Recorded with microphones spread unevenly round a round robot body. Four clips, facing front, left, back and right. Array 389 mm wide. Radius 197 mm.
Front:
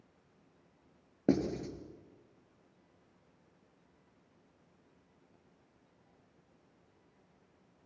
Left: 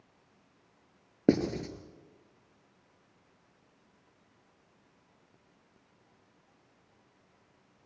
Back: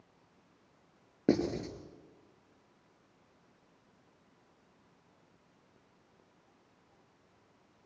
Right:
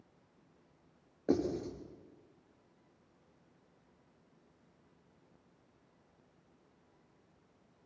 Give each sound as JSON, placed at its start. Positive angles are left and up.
{"t": 1.3, "sound": "writing", "azimuth_deg": 85, "distance_m": 4.0}